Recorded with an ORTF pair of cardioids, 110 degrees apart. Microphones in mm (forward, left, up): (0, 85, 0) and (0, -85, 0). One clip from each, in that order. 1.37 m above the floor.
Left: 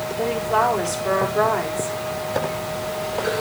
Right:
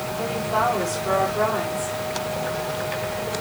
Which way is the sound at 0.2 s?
30° left.